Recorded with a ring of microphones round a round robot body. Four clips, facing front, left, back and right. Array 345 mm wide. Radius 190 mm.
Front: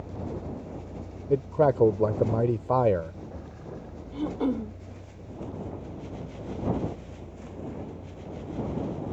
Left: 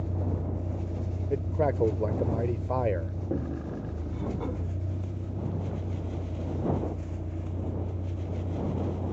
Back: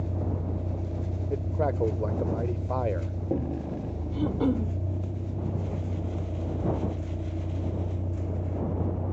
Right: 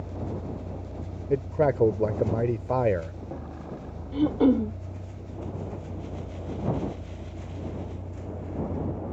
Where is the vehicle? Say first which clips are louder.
Left 1 dB, back 3 dB; 145° left; by 9.1 s 160° left.